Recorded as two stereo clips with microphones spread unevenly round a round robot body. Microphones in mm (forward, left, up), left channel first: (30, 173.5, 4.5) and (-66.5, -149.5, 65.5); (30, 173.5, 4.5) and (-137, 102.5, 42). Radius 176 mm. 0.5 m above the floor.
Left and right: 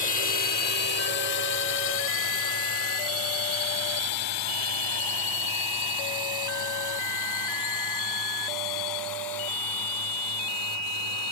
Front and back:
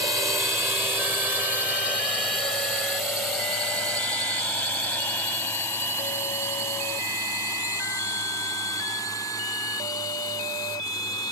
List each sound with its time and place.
0.0 s a drone: 125° left; by 11.3 s 90° left